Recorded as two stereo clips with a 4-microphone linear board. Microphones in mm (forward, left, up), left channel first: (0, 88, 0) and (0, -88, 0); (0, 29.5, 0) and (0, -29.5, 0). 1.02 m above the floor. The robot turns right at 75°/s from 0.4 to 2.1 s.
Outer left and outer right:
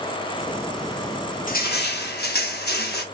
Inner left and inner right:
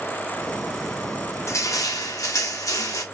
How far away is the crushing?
About 1.0 m.